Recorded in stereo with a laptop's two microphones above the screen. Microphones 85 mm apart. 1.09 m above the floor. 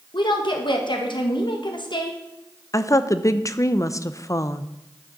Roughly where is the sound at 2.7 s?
Left.